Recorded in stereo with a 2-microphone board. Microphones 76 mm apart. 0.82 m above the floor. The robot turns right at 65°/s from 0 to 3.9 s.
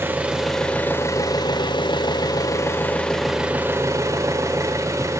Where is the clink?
I don't hear a clink.